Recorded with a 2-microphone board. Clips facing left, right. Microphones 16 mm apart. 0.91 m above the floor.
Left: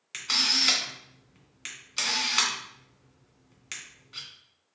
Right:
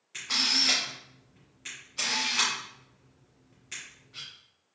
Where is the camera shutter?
75° left (ahead or behind), 2 m.